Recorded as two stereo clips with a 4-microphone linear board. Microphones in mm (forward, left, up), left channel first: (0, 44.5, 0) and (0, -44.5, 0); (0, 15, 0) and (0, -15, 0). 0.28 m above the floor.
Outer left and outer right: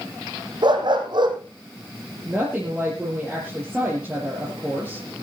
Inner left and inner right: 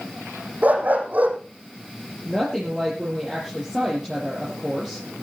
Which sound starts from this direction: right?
A dog barking, at 0.6 s.